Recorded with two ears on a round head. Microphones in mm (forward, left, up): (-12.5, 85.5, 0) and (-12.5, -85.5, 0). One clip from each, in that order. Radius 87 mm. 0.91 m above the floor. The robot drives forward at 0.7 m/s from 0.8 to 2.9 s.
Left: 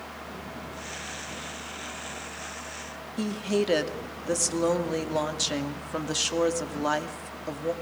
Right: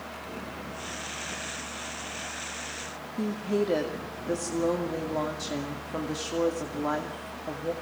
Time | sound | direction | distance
3.2 | a woman speaking | 60° left (ahead or behind) | 2.5 m